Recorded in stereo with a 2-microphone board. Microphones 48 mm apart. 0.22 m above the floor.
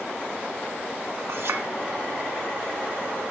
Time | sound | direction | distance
1.3 | a clink | 60° right (ahead or behind) | 1.5 m